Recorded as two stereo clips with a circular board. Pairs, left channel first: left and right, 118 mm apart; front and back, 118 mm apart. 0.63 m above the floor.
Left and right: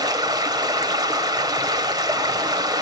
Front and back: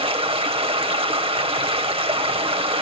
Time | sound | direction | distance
0.0 | running water | 145° right | 2.0 m